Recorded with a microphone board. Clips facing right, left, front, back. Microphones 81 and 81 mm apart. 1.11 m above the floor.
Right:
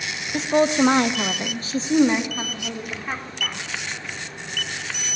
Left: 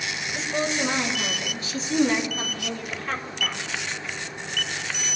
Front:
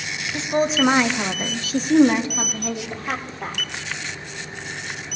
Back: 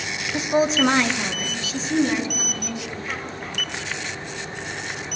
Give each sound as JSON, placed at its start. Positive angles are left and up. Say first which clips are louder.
{"t": 0.3, "sound": "a woman speaking", "louder": "right 9 dB, back 1 dB", "azimuth_deg": -110, "distance_m": 1.6}